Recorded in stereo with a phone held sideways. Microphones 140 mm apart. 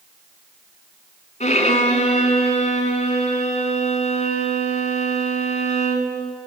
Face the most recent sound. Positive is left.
turn(degrees=55)  # may be behind; listen again after turning